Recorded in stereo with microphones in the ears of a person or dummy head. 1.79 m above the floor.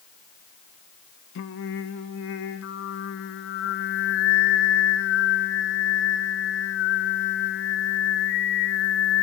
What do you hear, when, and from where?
1.4 s singing: 70° left (ahead or behind), 1.5 m